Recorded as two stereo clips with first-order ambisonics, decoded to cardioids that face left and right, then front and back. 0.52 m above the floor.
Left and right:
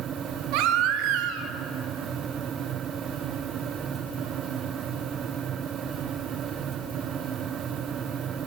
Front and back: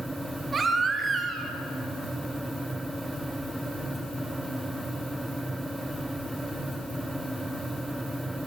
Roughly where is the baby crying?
Right.